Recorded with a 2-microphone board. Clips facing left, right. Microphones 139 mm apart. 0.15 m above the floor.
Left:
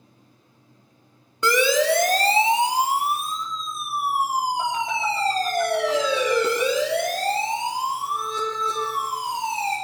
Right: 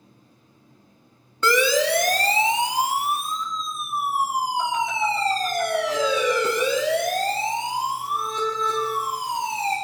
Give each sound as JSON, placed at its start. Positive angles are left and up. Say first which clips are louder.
{"t": 1.4, "sound": "a siren", "louder": "left 1 dB", "side_deg": 15, "distance_m": 2.0}